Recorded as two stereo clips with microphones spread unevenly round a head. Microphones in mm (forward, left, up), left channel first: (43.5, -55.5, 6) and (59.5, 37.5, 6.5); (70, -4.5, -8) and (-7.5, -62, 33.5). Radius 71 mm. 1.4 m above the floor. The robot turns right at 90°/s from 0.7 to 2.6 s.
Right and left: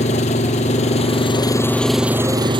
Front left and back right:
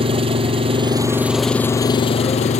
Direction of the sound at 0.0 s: 120° right.